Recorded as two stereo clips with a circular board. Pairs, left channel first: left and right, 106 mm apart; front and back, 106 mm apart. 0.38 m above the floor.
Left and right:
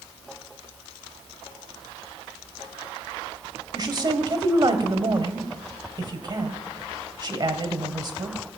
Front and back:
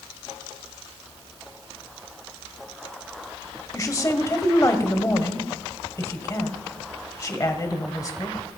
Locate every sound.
3.7 s a woman speaking: 50° right, 1.7 m